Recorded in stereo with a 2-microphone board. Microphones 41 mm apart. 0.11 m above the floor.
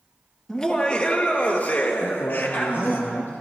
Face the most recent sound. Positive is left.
turn(degrees=65)  # may be behind; listen again after turning